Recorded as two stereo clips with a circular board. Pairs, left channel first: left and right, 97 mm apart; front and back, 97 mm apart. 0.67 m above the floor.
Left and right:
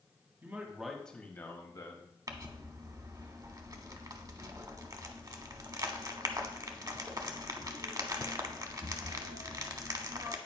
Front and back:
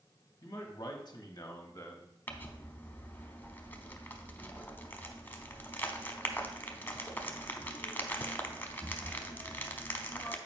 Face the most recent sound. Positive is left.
turn(degrees=-60)